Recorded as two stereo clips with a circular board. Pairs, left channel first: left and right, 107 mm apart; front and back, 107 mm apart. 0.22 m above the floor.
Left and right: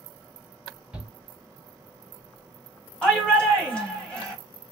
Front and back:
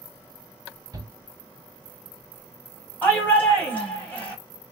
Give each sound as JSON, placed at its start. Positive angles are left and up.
{"t": 0.9, "sound": "a shout", "azimuth_deg": -165, "distance_m": 1.1}
{"t": 3.0, "sound": "a shout", "azimuth_deg": 30, "distance_m": 1.2}